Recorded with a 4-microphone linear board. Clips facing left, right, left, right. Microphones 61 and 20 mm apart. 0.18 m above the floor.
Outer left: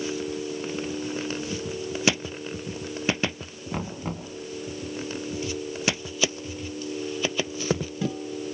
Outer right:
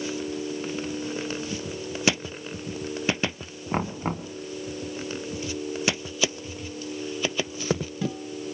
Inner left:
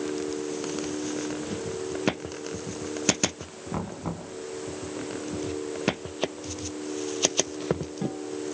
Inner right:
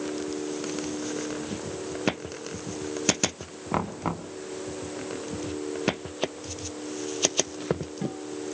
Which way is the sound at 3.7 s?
40° right (ahead or behind).